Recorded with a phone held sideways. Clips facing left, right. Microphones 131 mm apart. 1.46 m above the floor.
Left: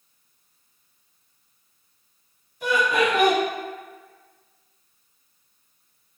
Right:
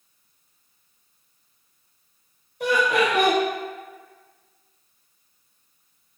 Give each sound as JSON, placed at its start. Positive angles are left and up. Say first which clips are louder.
{"t": 2.6, "sound": "laughter", "louder": "right 1 dB", "side_deg": -80, "distance_m": 1.7}